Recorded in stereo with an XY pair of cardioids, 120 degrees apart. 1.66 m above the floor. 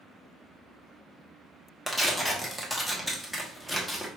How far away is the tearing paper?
About 1.0 m.